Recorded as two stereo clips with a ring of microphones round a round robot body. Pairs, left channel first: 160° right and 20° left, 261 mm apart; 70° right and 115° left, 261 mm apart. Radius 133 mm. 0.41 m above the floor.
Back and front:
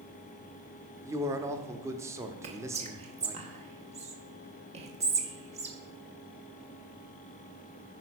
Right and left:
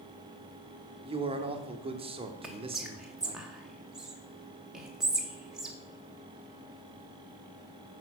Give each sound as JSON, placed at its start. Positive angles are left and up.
{"t": 1.1, "sound": "a man speaking", "azimuth_deg": 85, "distance_m": 0.9}
{"t": 2.4, "sound": "whispering", "azimuth_deg": 30, "distance_m": 1.1}